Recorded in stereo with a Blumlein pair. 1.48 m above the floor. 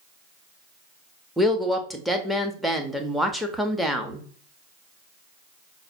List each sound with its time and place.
1.4 s a woman speaking: straight ahead, 0.8 m